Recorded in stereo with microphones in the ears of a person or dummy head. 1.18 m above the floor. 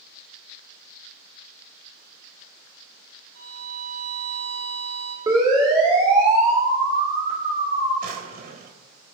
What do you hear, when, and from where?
3.4 s a violin: 80° right, 3 m
5.3 s a siren: 20° right (ahead or behind), 4.5 m; by 7.9 s 40° right (ahead or behind), 5 m
8.0 s a drawer: 55° right (ahead or behind), 3.5 m